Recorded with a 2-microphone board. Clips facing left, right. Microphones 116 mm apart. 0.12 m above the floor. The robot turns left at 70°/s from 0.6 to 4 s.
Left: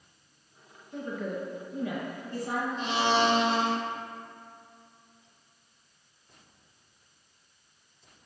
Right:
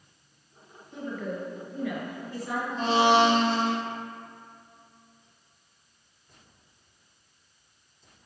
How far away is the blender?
About 0.6 m.